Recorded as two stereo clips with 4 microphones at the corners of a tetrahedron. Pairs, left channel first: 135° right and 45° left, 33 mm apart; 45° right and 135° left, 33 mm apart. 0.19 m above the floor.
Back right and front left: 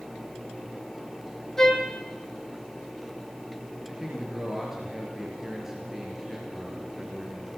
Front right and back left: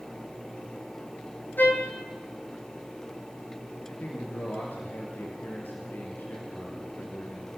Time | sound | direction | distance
1.6 | a trumpet | 60° right | 3 m
3.9 | a man speaking | 35° right | 3.5 m